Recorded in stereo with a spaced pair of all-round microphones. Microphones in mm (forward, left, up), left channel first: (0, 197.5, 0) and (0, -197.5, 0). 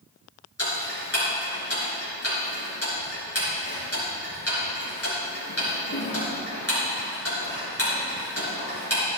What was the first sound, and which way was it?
Ticking, 35° left (ahead or behind).